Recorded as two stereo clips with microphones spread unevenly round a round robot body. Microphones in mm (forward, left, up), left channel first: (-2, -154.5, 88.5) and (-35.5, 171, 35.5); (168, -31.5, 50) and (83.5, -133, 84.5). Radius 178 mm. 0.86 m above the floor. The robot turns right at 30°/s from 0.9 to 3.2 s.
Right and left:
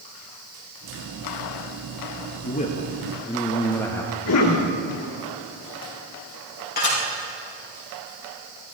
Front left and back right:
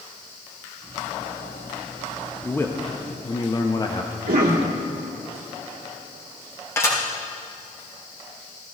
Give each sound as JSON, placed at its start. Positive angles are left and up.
{"t": 2.4, "sound": "a man speaking", "azimuth_deg": -20, "distance_m": 1.0}
{"t": 4.3, "sound": "a cough", "azimuth_deg": -125, "distance_m": 1.9}
{"t": 6.8, "sound": "dishes clattering", "azimuth_deg": -20, "distance_m": 4.0}